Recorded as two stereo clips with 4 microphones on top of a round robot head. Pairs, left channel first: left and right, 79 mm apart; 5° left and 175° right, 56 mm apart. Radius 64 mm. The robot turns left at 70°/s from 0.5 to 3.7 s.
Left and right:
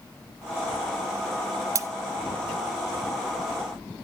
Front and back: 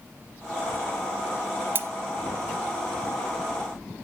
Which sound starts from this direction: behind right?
Cutlery clinking, at 1.8 s.